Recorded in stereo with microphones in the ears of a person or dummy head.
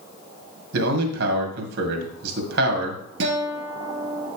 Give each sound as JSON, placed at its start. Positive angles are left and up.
{"t": 0.7, "sound": "a man speaking", "side_deg": -60, "distance_m": 2.5}
{"t": 3.2, "sound": "a guitar", "side_deg": -75, "distance_m": 2.5}